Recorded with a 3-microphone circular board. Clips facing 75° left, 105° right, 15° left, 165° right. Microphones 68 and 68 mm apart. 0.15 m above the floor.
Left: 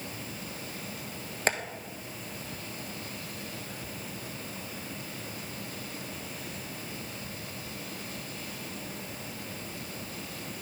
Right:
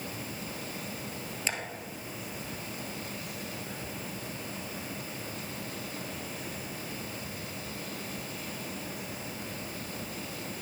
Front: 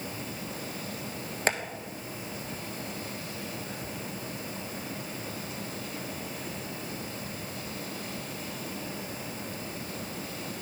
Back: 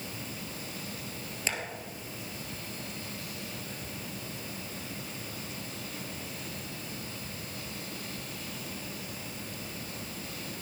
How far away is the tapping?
About 1.2 m.